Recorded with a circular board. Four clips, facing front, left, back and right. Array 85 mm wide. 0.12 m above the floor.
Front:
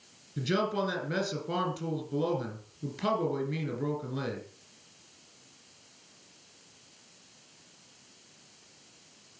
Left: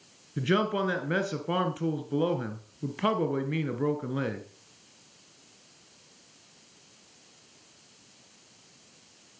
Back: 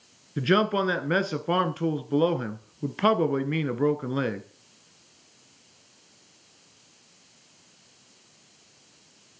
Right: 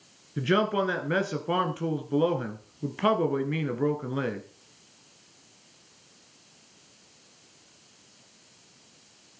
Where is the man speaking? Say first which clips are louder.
Right 2 dB, back 7 dB; 175° right, 1.4 m.